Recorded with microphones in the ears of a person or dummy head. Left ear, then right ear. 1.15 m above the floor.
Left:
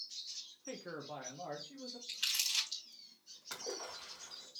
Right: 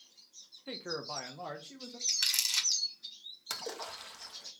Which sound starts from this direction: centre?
A man speaking, at 0.7 s.